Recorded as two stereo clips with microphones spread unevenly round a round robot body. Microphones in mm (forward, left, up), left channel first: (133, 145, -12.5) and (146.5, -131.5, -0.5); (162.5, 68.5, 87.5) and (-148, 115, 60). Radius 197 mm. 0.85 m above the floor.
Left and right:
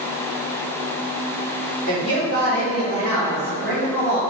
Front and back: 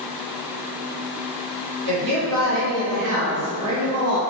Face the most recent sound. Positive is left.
turn(degrees=175)